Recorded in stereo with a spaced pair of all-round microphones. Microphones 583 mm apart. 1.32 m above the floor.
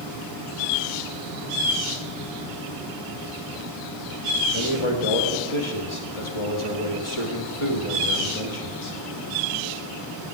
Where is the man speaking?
55° left (ahead or behind), 2 m.